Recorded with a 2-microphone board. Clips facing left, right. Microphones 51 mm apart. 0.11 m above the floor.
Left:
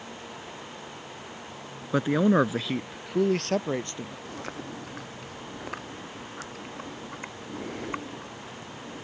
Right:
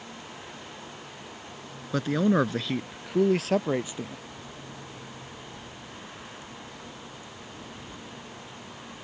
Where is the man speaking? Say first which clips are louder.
Left 2 dB; 15° left (ahead or behind); by 4.2 s 10° right (ahead or behind).